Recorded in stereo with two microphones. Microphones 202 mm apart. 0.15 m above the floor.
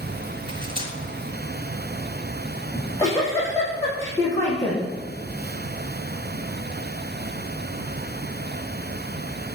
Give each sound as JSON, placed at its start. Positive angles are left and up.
{"t": 0.5, "sound": "cutlery clinking", "side_deg": -25, "distance_m": 1.4}
{"t": 2.7, "sound": "a giggle", "side_deg": 15, "distance_m": 3.0}